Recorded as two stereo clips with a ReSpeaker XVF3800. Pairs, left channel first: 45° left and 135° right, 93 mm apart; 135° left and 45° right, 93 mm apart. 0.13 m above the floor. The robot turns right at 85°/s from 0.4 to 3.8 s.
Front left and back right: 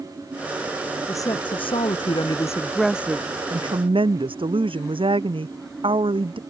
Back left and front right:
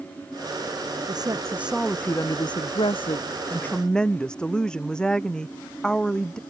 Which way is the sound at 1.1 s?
15° right.